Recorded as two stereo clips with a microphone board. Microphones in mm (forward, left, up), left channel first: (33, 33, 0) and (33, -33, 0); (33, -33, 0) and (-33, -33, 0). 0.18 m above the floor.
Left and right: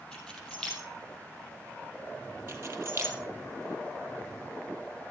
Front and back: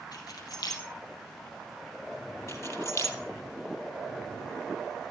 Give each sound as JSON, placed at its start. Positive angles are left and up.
{"t": 0.1, "sound": "keys jangling", "azimuth_deg": 15, "distance_m": 3.5}
{"t": 2.5, "sound": "keys jangling", "azimuth_deg": -40, "distance_m": 3.0}